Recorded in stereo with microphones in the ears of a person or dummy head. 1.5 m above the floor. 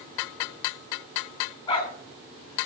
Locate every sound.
1.7 s a dog barking: 30° left (ahead or behind), 2.5 m